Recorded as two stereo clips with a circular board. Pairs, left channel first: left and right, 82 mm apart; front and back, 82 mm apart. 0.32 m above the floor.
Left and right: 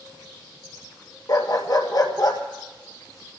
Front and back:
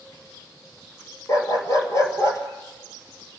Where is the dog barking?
50° left, 1.6 m.